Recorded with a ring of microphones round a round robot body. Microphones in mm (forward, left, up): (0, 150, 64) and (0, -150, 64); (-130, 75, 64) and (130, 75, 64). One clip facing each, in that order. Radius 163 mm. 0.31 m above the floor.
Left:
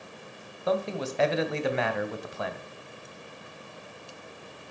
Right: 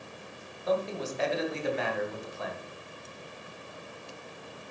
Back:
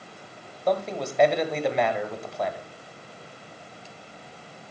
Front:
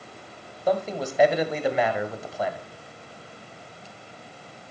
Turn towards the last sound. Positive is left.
turn(degrees=85)